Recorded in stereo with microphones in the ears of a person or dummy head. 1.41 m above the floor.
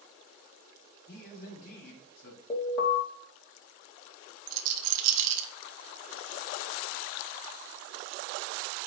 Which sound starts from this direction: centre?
An alarm, at 2.5 s.